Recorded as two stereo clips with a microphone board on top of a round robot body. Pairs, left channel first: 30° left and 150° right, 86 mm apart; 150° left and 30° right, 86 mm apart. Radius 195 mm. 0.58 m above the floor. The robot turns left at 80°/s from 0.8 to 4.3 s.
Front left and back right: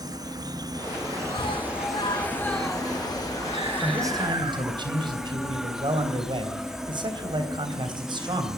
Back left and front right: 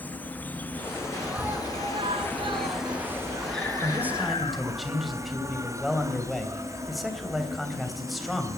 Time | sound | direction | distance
0.0 | an insect | 145° right | 1.9 m
1.3 | a scream | 55° left | 8 m
3.8 | a man speaking | 80° right | 3.5 m